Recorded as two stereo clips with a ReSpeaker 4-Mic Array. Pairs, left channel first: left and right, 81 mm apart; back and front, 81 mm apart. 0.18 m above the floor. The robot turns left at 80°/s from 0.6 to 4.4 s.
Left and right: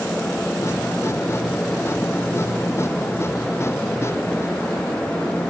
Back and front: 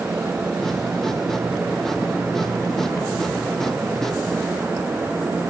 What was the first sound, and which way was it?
Only background noise.